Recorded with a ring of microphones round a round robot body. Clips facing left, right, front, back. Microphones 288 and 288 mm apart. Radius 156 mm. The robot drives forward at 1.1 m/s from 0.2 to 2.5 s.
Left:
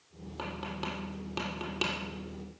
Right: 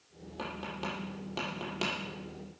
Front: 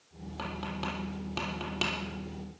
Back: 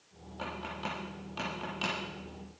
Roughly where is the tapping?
Ahead.